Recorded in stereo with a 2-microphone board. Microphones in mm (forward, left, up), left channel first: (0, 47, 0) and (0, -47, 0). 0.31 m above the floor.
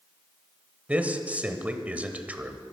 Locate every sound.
0.9 s a man speaking: 15° right (ahead or behind), 1.1 m